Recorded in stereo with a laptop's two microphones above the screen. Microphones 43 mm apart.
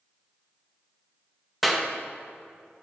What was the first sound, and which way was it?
A clap, centre (ahead or behind).